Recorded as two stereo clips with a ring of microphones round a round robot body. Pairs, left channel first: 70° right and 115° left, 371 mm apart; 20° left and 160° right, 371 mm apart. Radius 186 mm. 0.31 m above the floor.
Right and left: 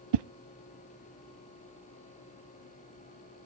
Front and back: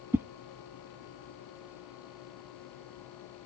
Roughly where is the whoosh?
Behind left.